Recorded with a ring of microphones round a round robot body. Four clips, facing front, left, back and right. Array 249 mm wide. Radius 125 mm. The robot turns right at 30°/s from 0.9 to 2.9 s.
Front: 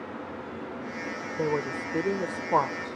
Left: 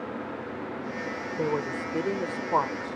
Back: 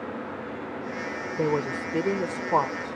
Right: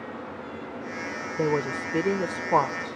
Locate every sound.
1.4 s a woman speaking: 135° right; by 3.0 s 90° right